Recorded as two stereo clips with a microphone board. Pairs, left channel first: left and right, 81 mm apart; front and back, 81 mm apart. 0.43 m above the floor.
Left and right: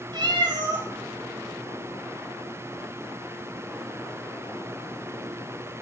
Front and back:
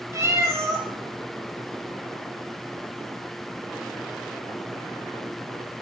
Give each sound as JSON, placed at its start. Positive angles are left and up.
{"t": 0.1, "sound": "a cat meowing", "azimuth_deg": -125, "distance_m": 4.0}